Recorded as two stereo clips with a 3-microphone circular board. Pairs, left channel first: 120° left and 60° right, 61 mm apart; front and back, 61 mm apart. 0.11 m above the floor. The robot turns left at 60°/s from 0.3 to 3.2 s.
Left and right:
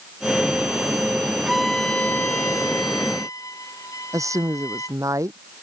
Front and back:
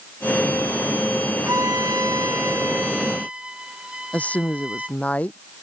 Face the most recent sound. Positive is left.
turn(degrees=-60)